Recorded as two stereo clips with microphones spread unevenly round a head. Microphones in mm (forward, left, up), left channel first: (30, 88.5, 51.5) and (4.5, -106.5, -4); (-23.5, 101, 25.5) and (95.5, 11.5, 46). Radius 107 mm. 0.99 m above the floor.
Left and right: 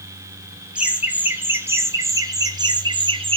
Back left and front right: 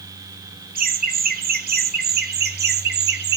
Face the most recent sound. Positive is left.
turn(degrees=-35)